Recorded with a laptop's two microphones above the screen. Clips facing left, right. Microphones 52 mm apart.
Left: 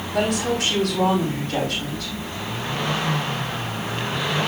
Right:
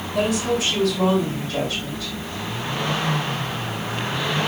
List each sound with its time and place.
0.1 s a woman speaking: 80° left, 6 m